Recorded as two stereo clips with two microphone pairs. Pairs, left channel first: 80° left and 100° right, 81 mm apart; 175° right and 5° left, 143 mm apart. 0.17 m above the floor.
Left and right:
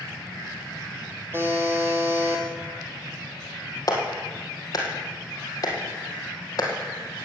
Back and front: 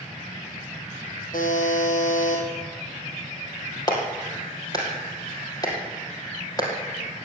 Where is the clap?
120° left, 3.5 m.